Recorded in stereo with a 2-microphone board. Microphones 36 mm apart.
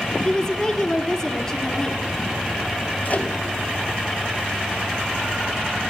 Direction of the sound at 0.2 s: 25° left (ahead or behind).